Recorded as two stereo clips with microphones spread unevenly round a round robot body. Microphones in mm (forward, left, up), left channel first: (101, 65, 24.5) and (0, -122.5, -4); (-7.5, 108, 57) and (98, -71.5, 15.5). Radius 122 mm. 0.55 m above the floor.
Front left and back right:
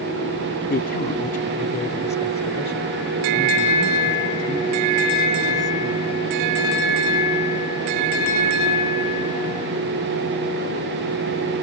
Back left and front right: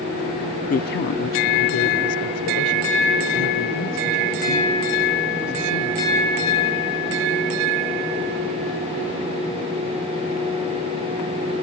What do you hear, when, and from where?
0.7 s a man speaking: 80° left; by 6.6 s 140° left